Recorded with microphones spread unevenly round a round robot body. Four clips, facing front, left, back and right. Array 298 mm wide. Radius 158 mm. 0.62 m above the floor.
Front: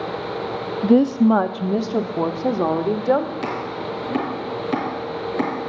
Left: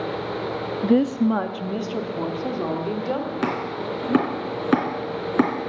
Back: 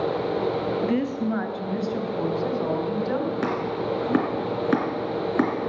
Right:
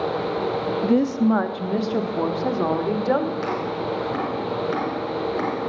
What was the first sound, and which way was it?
A woman speaking, 15° left.